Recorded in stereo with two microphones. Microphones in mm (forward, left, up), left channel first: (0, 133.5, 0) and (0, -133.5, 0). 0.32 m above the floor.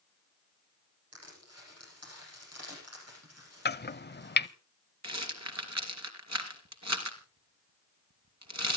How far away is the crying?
I don't hear crying.